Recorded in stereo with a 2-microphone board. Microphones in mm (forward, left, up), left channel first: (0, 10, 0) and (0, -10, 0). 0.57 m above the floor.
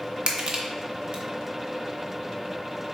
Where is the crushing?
65° right (ahead or behind), 0.7 m.